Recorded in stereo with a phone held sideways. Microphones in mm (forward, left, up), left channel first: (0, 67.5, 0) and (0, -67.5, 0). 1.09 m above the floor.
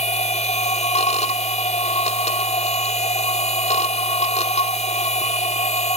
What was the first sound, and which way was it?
A machine running, 55° left (ahead or behind).